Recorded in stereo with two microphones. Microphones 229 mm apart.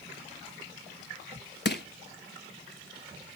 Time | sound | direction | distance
1.6 | crushing | 50° left (ahead or behind) | 0.6 m